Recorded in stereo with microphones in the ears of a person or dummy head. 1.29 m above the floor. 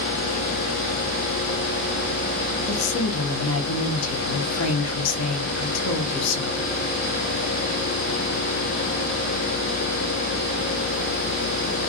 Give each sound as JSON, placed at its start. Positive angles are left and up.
{"t": 2.7, "sound": "a woman speaking", "side_deg": 85, "distance_m": 1.2}